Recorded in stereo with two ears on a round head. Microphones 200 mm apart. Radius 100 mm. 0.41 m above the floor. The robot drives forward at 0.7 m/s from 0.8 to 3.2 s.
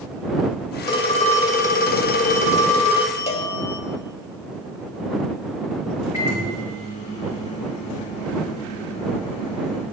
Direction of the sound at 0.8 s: 20° left (ahead or behind).